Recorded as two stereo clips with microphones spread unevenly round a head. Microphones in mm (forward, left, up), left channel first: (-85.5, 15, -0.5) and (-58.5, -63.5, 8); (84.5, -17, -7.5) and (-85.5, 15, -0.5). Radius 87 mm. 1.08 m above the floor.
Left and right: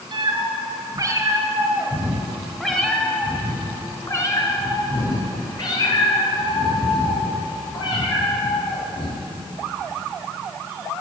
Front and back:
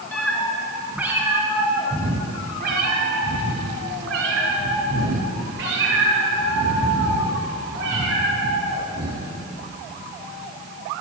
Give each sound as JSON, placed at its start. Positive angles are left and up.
{"t": 0.1, "sound": "a cat meowing", "azimuth_deg": -95, "distance_m": 2.5}